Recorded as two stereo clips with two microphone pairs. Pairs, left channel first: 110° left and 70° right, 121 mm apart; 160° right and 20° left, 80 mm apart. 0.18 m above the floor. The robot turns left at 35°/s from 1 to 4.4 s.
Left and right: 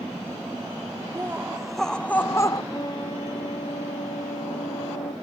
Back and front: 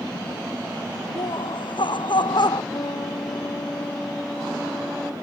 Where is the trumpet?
170° left; by 5.1 s 110° left.